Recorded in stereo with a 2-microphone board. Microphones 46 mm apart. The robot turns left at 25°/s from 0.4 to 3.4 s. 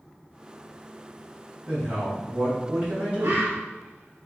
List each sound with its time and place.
1.6 s a man speaking: 70° right, 1.5 m; by 3.4 s 115° right, 1.5 m
3.2 s a bird: 75° right (ahead or behind), 0.7 m